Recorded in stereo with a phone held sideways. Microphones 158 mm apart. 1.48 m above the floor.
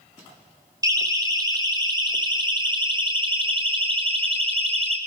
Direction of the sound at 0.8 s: 20° right (ahead or behind).